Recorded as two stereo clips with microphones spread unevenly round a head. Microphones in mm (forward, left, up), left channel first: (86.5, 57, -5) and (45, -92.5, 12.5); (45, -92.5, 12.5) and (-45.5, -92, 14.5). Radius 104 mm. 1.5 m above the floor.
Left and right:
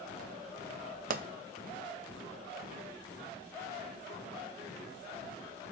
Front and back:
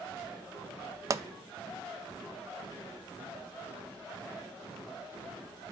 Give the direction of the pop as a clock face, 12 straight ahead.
4 o'clock.